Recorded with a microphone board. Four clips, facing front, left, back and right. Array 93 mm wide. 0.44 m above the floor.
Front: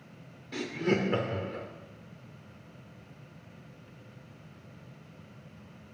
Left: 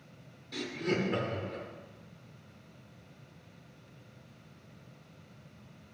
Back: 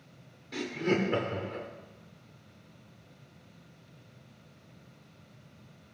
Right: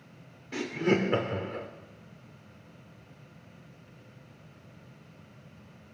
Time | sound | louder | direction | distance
0.5 | laughter | right 6 dB, even | 85° right | 0.8 m